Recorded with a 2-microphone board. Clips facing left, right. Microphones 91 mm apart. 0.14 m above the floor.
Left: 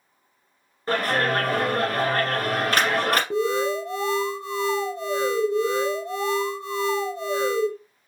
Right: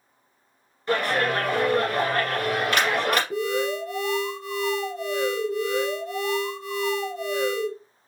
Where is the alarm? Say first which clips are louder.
Left 2 dB; 25° left (ahead or behind), 0.9 m.